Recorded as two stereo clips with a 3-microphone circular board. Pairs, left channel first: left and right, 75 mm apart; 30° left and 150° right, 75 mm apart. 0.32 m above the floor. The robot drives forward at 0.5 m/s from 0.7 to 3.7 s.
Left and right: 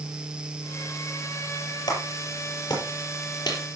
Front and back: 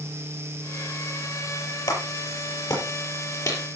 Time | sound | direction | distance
1.9 | a clap | 60° left | 6 m